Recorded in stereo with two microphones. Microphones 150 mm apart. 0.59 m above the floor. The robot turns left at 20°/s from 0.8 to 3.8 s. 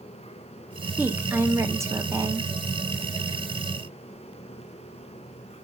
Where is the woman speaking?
15° right (ahead or behind), 0.6 m; by 2.5 s 20° right (ahead or behind), 0.6 m.